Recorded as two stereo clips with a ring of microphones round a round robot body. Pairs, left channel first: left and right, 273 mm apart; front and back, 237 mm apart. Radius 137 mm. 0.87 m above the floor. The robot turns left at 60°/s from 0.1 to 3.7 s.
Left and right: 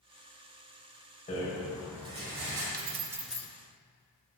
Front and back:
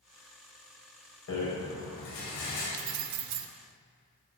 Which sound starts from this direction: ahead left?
A rattle, at 1.3 s.